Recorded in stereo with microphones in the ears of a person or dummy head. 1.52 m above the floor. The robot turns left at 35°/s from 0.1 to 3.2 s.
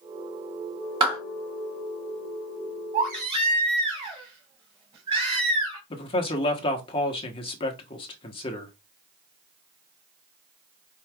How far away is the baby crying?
About 1.9 m.